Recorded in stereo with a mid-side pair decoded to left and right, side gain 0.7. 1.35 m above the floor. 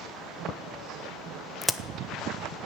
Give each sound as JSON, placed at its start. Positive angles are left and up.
{"t": 1.6, "sound": "a crack", "azimuth_deg": 5, "distance_m": 0.7}